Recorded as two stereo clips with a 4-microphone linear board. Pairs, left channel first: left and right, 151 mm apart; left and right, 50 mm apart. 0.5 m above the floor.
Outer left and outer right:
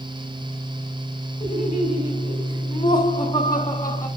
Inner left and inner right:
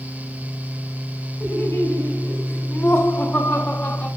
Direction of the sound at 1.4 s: 40° left (ahead or behind).